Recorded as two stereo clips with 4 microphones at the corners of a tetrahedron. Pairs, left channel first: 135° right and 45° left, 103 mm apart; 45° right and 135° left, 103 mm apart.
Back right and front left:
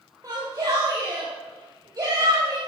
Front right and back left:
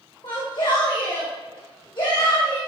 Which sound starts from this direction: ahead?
A shout, at 0.2 s.